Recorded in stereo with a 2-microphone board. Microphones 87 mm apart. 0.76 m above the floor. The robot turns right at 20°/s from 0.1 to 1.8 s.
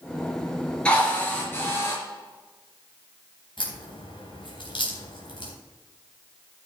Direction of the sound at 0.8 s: 10° left (ahead or behind).